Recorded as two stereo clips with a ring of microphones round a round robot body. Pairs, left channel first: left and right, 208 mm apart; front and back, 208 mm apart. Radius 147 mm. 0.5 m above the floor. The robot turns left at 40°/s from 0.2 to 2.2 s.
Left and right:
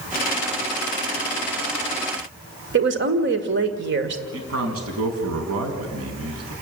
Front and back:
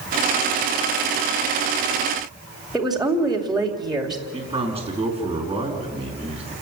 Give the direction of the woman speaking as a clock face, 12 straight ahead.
3 o'clock.